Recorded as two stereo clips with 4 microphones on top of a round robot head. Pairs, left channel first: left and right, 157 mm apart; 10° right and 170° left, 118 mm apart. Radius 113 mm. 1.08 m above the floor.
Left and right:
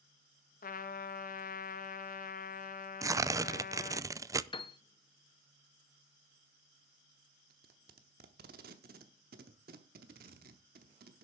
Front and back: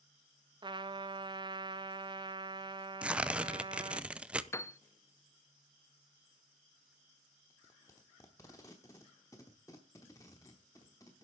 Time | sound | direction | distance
0.6 | a trumpet | 120° left | 0.9 m
3.0 | tearing paper | 120° right | 0.6 m
4.5 | a piano | 50° left | 0.8 m
7.5 | tape being pulled | 80° right | 0.8 m